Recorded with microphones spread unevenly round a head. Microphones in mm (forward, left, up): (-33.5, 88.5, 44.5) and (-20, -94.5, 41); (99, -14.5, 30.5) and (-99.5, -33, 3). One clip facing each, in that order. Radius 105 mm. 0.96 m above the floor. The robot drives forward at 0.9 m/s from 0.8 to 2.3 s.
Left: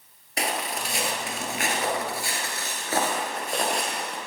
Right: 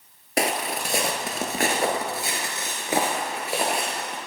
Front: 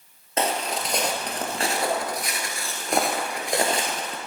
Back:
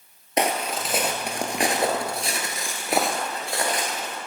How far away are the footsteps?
About 1.1 m.